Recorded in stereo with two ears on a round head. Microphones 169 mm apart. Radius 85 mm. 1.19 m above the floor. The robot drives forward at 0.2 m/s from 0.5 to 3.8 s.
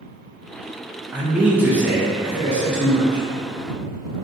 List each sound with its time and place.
1.1 s a man speaking: 10° right (ahead or behind), 0.5 m; by 3.2 s 5° right (ahead or behind), 0.9 m